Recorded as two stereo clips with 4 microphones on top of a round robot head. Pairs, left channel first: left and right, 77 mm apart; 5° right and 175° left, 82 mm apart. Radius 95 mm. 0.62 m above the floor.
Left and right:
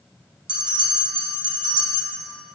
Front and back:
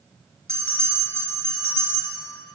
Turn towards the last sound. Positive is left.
turn(degrees=-85)